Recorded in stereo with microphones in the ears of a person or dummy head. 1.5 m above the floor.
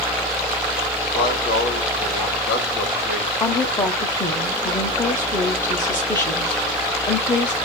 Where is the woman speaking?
5° left (ahead or behind), 0.6 m.